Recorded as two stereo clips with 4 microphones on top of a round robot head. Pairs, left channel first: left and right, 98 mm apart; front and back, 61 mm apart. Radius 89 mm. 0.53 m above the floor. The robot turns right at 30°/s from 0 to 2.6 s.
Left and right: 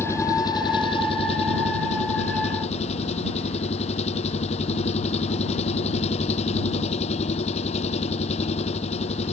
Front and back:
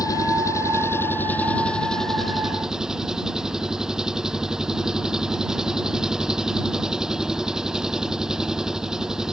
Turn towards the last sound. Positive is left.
turn(degrees=100)